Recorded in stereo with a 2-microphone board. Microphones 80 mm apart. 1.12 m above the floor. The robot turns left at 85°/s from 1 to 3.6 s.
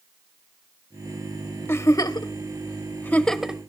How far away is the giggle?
About 0.8 m.